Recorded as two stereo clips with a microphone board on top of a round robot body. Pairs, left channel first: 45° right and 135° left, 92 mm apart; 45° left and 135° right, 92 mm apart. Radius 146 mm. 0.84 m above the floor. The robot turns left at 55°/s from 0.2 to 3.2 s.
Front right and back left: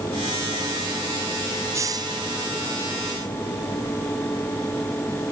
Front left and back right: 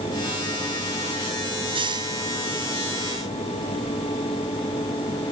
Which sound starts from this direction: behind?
A hiss, at 1.7 s.